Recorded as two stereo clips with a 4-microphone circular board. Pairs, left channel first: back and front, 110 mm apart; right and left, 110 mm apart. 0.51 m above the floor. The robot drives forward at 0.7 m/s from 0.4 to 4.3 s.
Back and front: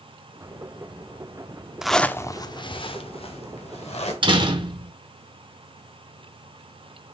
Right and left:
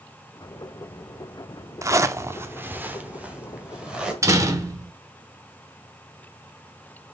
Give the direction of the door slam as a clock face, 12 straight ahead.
11 o'clock.